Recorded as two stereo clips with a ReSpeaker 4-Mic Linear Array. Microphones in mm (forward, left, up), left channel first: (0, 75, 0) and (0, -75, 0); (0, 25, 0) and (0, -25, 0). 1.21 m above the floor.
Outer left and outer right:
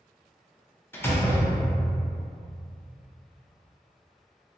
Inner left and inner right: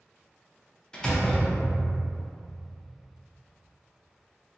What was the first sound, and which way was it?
A door slam, 15° left (ahead or behind).